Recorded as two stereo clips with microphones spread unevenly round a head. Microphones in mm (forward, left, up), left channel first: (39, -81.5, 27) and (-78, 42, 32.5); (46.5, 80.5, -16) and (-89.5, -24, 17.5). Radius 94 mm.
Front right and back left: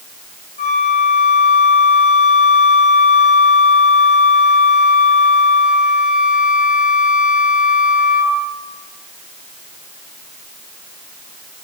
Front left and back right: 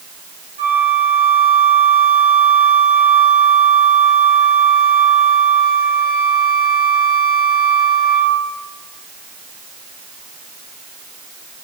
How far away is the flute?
About 5 m.